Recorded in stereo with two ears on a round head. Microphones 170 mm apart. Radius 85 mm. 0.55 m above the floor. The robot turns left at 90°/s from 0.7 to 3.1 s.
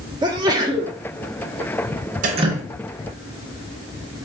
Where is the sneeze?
20° right (ahead or behind), 0.7 m; by 0.9 s 10° right (ahead or behind), 0.7 m.